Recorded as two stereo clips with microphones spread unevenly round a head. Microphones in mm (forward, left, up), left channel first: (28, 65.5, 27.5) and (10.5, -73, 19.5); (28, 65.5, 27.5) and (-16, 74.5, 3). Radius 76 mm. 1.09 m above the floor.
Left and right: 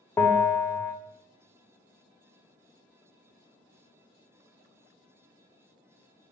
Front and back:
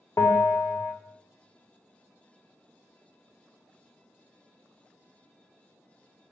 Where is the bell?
15° left, 0.5 m.